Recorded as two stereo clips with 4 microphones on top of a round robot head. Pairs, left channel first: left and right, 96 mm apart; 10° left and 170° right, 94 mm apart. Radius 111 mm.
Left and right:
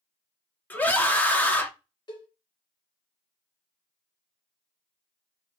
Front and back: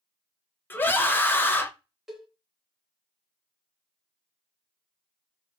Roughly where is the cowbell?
Left.